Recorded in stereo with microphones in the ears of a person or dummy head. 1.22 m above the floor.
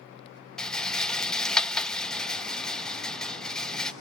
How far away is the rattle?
About 0.5 m.